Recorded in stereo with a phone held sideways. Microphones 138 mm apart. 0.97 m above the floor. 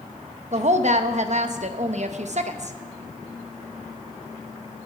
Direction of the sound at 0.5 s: 55° right (ahead or behind).